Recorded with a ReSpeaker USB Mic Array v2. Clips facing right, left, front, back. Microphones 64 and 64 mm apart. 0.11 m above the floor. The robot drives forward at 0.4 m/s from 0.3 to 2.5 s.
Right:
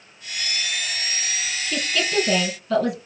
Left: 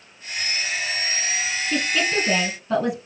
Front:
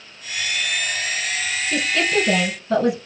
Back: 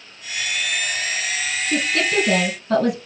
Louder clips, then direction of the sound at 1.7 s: Left 2 dB, even; 145° left.